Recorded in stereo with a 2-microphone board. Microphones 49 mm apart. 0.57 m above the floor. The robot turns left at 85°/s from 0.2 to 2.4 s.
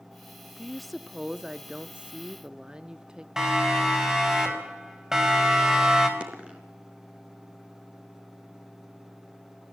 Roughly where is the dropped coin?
Right.